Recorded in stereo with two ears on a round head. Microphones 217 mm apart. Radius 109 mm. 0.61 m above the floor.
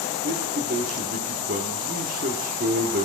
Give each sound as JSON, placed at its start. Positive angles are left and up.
{"t": 0.2, "sound": "a man speaking", "side_deg": -35, "distance_m": 1.3}